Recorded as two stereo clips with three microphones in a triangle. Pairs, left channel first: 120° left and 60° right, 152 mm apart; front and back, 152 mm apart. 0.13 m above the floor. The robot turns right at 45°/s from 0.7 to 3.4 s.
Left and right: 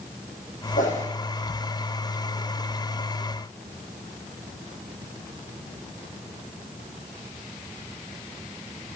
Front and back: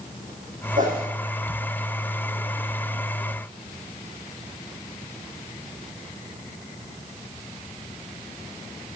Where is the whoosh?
150° left, 4 m; by 1.1 s 165° left, 4 m.